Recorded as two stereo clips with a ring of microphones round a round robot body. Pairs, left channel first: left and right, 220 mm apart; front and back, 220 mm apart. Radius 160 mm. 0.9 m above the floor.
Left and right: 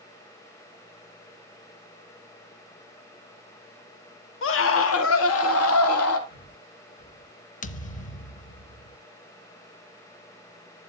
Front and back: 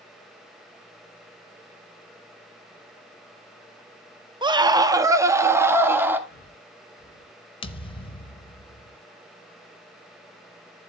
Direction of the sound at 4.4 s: 110° left.